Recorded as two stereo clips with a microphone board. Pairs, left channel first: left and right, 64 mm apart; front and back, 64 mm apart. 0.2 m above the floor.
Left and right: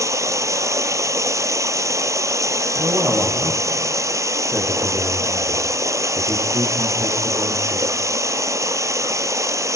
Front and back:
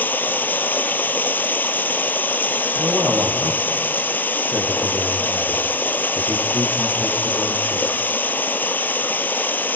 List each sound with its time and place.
0.0 s running water: 60° right, 0.7 m
2.8 s a man speaking: 125° right, 5.5 m